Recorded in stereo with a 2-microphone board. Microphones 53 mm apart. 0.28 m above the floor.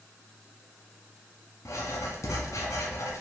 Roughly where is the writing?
Left.